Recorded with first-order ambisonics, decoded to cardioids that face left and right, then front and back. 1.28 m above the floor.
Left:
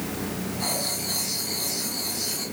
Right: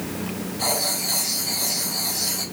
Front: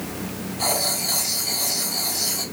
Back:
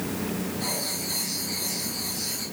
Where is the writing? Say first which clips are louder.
Right 5 dB, front 10 dB; 30° right, 4.5 m.